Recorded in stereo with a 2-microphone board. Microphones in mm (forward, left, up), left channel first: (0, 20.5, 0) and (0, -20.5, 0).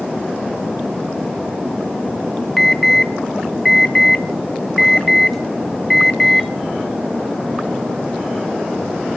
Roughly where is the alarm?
Centre.